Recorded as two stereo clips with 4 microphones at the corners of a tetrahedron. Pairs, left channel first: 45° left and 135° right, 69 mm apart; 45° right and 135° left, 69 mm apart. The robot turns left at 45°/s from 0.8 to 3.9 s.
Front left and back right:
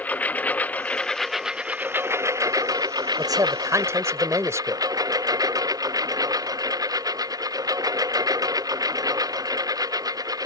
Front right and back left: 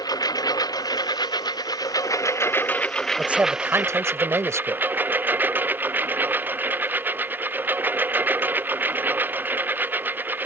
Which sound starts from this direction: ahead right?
A lawn mower, at 0.0 s.